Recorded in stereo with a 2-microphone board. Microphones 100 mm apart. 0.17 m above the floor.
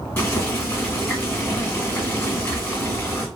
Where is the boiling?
20° left (ahead or behind), 1.7 m.